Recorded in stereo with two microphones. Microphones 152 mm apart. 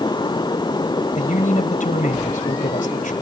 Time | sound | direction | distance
1.1 | a man speaking | 65° left (ahead or behind) | 3 m